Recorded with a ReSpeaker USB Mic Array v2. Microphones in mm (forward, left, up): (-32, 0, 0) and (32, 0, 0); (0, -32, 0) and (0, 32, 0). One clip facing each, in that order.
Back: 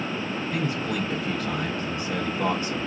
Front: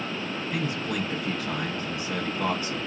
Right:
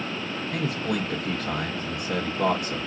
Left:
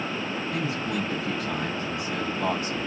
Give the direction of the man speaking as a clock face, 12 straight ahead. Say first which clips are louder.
Back 1 dB, right 3 dB; 3 o'clock.